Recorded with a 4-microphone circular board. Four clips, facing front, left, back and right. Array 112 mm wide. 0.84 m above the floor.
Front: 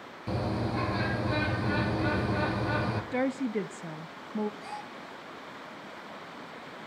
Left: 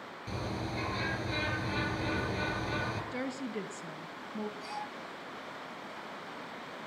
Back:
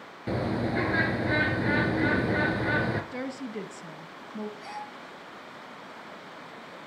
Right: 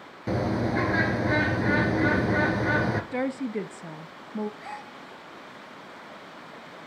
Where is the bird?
120° right, 2.5 m.